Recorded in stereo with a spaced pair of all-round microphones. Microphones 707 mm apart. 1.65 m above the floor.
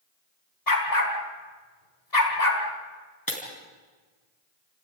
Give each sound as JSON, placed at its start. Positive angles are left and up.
{"t": 0.7, "sound": "a dog barking", "side_deg": 70, "distance_m": 4.0}
{"t": 3.3, "sound": "breaking glass", "side_deg": 30, "distance_m": 4.5}